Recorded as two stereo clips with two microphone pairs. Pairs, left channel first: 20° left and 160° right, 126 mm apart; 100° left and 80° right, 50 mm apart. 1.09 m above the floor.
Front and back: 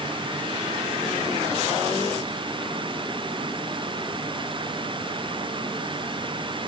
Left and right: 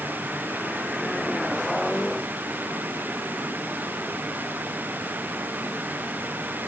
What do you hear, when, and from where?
Only background noise.